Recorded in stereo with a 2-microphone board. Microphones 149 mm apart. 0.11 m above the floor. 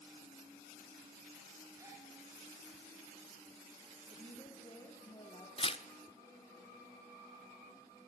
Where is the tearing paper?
40° left (ahead or behind), 0.8 m.